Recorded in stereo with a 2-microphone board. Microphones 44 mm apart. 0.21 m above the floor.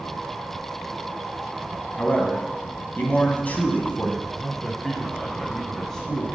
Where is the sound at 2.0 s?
35° left (ahead or behind), 1.9 m.